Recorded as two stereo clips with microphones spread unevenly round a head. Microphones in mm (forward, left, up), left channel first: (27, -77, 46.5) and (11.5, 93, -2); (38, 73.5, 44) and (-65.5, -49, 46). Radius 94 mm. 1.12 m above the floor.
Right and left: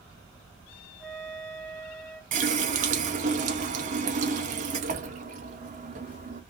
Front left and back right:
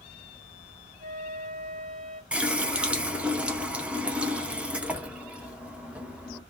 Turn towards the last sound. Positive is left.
turn(degrees=145)